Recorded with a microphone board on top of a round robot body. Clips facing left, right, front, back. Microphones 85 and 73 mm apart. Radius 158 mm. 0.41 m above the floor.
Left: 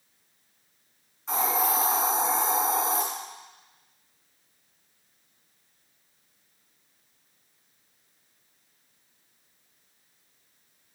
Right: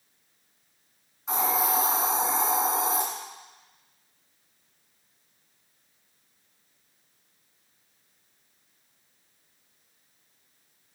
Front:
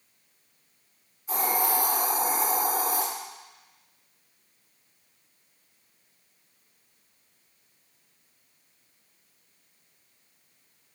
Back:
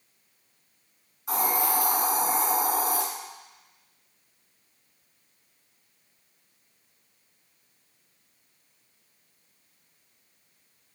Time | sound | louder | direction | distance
1.3 | a hiss | even, even | straight behind | 2.5 m